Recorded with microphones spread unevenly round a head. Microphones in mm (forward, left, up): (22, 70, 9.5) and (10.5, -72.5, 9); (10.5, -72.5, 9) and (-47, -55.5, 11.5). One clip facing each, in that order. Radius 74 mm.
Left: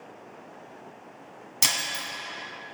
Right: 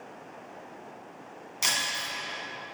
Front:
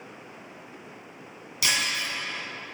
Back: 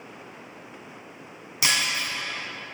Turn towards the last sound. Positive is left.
turn(degrees=100)